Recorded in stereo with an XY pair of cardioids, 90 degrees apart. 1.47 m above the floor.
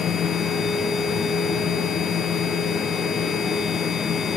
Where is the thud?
No thud in this recording.